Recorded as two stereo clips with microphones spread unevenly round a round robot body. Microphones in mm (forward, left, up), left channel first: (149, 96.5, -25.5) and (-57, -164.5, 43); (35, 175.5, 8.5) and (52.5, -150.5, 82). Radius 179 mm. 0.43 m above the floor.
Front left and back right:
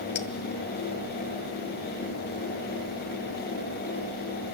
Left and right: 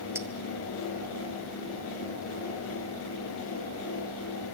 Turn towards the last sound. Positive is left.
turn(degrees=0)